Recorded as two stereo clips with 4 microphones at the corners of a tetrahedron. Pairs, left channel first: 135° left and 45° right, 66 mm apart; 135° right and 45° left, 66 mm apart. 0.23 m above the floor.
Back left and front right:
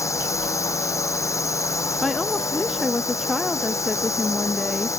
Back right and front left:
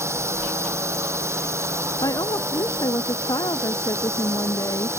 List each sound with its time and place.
0.0 s a drone: 90° left
2.0 s a woman speaking: 135° right